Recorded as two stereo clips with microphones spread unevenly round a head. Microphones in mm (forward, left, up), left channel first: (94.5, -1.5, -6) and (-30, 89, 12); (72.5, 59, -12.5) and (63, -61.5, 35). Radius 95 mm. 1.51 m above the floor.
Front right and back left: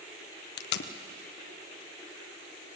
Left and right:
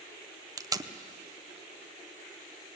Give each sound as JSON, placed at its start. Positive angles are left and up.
{"t": 0.6, "sound": "tape being pulled", "azimuth_deg": -30, "distance_m": 0.9}